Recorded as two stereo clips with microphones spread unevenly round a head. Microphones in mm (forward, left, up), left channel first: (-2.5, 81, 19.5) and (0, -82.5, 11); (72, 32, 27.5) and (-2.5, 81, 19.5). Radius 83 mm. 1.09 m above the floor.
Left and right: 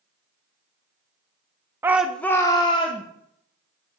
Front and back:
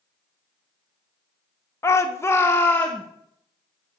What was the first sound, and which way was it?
A shout, 45° right.